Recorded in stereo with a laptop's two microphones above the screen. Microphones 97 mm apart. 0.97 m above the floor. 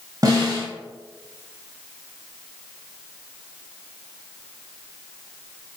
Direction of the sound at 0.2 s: 40° right (ahead or behind).